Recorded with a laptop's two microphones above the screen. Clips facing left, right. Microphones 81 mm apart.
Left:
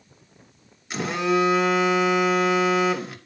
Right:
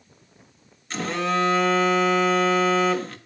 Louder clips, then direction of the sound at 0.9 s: Left 2 dB; 15° left (ahead or behind).